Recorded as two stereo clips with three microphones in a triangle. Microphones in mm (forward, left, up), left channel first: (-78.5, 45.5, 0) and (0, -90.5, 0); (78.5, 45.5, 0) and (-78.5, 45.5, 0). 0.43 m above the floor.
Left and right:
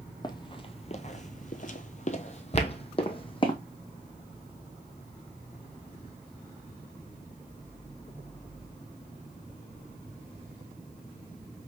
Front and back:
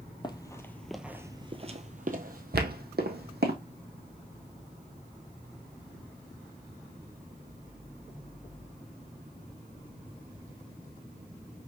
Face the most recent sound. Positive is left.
turn(degrees=165)